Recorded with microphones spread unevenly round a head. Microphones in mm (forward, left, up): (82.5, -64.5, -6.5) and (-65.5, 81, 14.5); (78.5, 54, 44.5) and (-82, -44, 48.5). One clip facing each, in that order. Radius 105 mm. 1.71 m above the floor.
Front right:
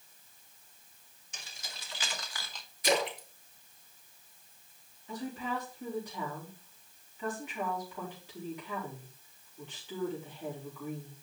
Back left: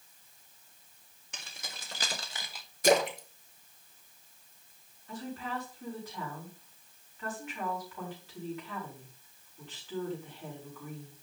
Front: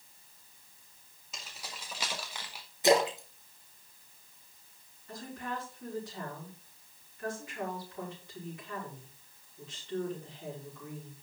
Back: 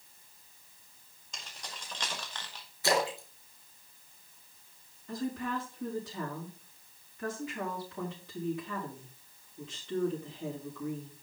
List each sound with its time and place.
1.3 s keys jangling: 115° left, 1.9 m; by 2.7 s 80° left, 0.9 m
2.8 s a splash: 105° left, 1.2 m
5.1 s a woman speaking: 120° right, 5 m